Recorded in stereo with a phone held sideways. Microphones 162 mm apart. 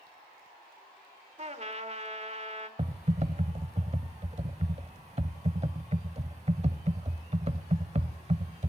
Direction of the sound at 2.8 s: 45° right (ahead or behind).